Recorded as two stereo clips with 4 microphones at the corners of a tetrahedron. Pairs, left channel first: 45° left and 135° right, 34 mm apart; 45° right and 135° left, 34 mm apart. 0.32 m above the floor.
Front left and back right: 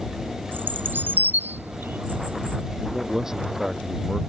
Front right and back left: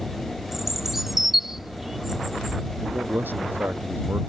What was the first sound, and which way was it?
A bird, 140° right.